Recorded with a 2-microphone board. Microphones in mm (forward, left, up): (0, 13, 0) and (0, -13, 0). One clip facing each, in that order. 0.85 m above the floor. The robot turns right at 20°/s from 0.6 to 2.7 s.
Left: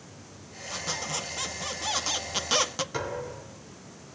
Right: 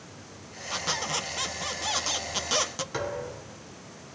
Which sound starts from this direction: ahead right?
A squeak, at 0.7 s.